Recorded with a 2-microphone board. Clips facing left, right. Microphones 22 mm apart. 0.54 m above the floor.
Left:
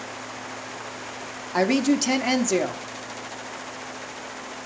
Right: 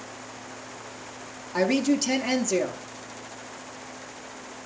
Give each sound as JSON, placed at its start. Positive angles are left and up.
{"t": 1.5, "sound": "a woman speaking", "side_deg": 30, "distance_m": 0.7}